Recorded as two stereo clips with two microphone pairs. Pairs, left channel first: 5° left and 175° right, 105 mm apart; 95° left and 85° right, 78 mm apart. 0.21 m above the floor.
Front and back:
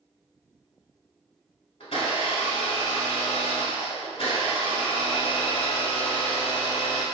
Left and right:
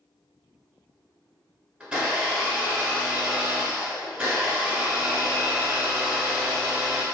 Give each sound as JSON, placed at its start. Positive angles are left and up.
{"t": 1.8, "sound": "a blender", "azimuth_deg": -15, "distance_m": 1.0}